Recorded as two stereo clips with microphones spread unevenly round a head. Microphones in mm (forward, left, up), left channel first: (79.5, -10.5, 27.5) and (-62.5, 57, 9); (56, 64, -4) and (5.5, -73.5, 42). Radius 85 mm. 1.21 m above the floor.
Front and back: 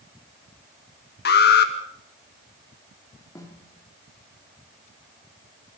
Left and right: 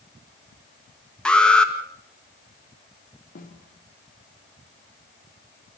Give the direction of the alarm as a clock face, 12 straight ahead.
12 o'clock.